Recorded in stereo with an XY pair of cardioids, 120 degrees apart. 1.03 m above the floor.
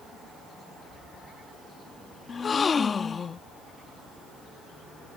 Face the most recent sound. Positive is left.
turn(degrees=35)